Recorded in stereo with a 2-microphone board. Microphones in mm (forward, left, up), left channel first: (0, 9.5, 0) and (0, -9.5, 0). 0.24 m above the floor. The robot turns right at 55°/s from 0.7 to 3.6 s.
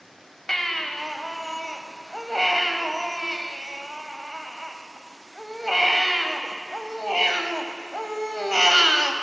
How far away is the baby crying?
About 0.8 m.